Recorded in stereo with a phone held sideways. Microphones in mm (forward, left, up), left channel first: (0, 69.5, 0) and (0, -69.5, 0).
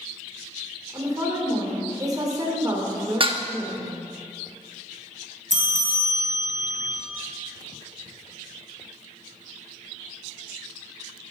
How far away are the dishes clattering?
About 0.9 m.